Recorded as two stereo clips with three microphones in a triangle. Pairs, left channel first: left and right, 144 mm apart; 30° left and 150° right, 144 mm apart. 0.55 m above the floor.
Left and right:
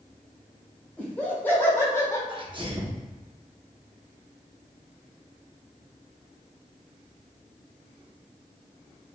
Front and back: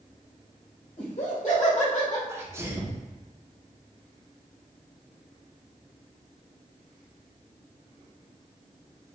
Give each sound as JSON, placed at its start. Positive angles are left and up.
{"t": 1.0, "sound": "laughter", "azimuth_deg": 10, "distance_m": 1.9}
{"t": 2.3, "sound": "a sneeze", "azimuth_deg": -95, "distance_m": 0.9}